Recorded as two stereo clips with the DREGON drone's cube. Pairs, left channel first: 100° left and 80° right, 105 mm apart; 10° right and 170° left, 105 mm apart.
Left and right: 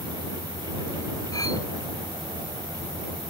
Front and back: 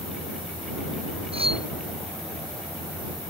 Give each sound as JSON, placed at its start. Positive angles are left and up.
{"t": 1.3, "sound": "cutlery clinking", "azimuth_deg": 155}